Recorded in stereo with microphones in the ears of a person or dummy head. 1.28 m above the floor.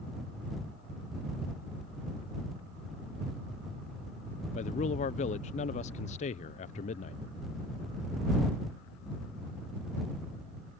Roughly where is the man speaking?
Left.